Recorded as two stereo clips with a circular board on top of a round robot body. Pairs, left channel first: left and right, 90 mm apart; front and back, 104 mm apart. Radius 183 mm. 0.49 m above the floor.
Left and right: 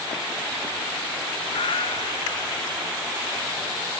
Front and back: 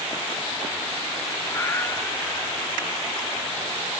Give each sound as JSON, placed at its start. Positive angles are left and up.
{"t": 1.5, "sound": "a cat meowing", "azimuth_deg": 70, "distance_m": 1.1}